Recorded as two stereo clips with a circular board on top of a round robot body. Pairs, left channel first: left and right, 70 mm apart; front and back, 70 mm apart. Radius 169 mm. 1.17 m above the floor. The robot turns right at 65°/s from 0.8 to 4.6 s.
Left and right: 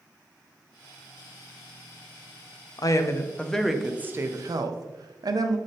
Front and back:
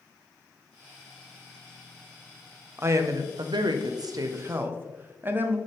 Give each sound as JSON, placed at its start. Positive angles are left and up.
{"t": 2.8, "sound": "a woman speaking", "azimuth_deg": 125, "distance_m": 0.7}